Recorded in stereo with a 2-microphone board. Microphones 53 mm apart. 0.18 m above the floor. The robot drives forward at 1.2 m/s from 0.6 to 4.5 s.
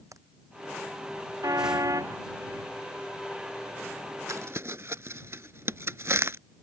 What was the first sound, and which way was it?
A crack, 75° right (ahead or behind).